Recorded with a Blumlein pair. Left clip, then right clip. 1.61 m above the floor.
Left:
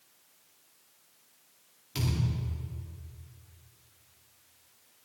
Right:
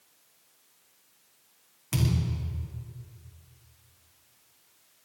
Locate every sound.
1.9 s a thud: 45° right, 7 m